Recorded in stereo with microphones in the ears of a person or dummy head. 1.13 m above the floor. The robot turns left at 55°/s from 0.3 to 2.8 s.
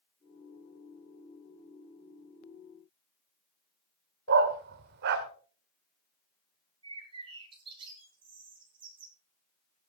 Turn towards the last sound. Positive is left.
turn(degrees=-25)  # may be behind; listen again after turning